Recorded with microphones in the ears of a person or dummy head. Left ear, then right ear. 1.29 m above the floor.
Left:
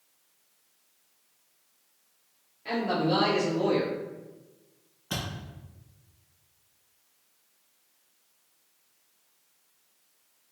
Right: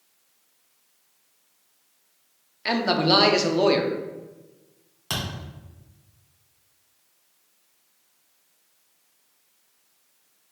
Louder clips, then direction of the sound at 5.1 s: Right 5 dB; 50° right (ahead or behind).